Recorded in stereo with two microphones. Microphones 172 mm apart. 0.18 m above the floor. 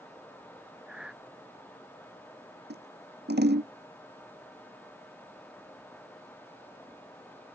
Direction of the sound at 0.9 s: 5° right (ahead or behind).